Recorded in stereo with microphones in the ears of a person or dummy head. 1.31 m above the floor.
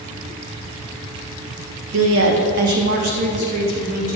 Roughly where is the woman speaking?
Right.